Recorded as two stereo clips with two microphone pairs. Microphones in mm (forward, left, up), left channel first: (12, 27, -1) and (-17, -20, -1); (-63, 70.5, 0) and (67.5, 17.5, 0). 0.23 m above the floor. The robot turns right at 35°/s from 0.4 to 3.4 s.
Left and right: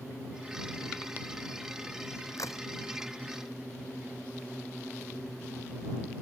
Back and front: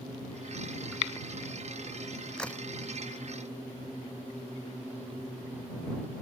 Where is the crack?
75° left; by 2.6 s 80° left.